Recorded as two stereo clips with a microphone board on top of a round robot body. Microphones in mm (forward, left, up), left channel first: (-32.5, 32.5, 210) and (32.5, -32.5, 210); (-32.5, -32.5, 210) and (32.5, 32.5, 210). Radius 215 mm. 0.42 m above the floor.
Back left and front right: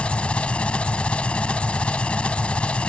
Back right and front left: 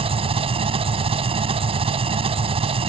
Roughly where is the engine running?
Ahead left.